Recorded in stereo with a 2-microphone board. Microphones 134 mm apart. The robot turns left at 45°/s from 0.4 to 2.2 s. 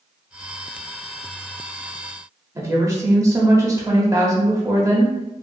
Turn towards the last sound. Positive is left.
turn(degrees=-25)  # may be behind; listen again after turning